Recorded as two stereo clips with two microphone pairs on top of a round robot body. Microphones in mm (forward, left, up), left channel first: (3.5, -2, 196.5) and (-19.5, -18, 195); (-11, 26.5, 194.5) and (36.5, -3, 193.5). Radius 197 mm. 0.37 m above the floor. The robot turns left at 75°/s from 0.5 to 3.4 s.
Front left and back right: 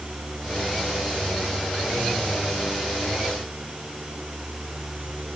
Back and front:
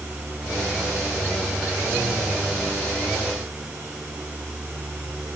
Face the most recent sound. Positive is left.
No sound to turn to.